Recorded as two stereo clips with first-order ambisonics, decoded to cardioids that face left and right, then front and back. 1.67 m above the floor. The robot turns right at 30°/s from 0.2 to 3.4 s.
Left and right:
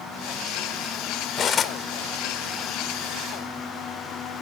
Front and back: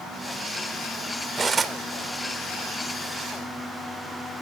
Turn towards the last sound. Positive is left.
turn(degrees=180)